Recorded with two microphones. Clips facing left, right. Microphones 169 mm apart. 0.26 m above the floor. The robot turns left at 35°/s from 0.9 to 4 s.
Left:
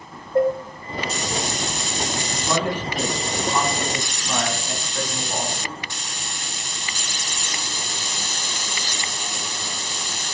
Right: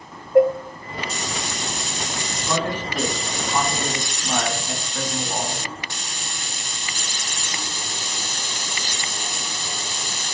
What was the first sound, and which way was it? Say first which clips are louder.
Dishes clattering: right 4 dB; 15° right (ahead or behind).